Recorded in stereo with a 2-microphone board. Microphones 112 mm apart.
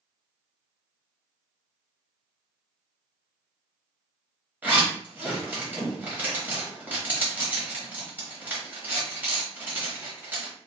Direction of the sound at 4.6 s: 15° right (ahead or behind).